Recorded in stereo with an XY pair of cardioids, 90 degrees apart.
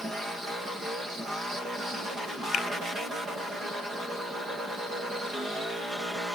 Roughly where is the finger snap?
Left.